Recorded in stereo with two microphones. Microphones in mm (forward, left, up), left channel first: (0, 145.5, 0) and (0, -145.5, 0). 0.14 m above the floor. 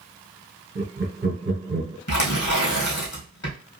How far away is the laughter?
About 1.8 m.